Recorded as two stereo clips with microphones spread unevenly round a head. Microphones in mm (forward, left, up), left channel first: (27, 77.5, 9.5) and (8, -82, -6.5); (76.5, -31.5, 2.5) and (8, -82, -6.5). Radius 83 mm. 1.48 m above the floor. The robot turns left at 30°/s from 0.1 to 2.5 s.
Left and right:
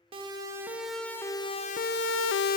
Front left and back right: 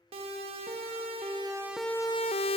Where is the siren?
155° right, 2.5 m; by 2.6 s 45° left, 0.5 m.